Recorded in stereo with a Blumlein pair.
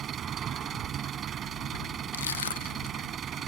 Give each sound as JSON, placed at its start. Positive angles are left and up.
{"t": 0.0, "sound": "an engine running", "azimuth_deg": -25}
{"t": 2.1, "sound": "crushing", "azimuth_deg": 70}